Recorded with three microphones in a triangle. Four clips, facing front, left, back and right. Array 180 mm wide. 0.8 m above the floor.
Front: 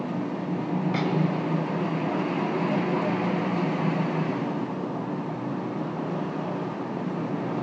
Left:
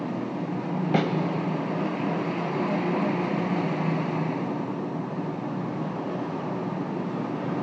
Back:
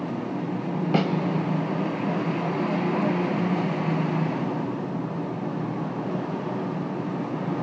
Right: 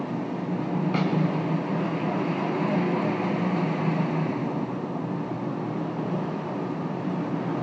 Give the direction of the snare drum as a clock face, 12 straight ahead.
8 o'clock.